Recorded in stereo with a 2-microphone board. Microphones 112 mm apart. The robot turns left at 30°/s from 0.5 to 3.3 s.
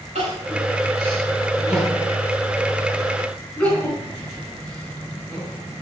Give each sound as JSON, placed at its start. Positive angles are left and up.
{"t": 0.1, "sound": "crying", "side_deg": -70, "distance_m": 5.5}